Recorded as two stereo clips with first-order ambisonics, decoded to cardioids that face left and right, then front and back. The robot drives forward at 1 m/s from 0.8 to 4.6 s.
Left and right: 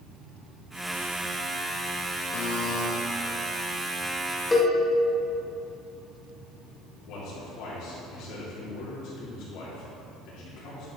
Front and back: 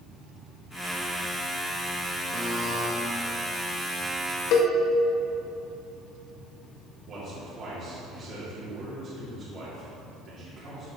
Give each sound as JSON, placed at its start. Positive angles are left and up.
{"t": 2.3, "sound": "a buzzer", "azimuth_deg": 95, "distance_m": 2.0}
{"t": 4.5, "sound": "a cowbell", "azimuth_deg": 10, "distance_m": 1.6}
{"t": 7.1, "sound": "a man speaking", "azimuth_deg": 120, "distance_m": 3.0}